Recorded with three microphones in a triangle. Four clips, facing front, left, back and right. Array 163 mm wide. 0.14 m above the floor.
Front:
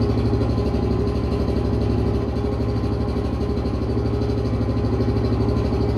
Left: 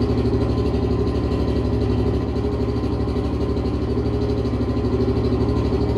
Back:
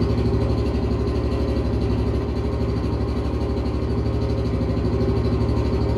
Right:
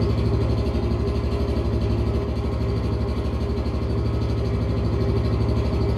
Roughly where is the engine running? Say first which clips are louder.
Left 4 dB, front 1 dB; ahead left.